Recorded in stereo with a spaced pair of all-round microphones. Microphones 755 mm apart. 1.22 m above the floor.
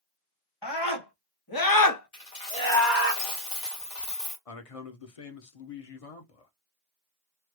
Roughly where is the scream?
Left.